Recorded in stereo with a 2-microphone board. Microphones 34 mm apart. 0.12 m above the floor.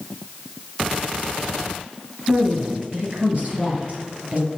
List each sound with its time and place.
2.3 s a woman speaking: 45° right (ahead or behind), 2 m